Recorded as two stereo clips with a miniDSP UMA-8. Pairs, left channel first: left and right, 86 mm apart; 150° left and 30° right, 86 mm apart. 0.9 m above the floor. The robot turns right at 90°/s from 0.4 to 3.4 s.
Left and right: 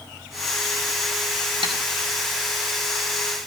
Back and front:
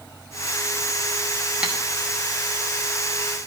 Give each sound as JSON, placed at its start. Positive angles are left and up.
{"t": 1.6, "sound": "tapping", "azimuth_deg": -105, "distance_m": 2.5}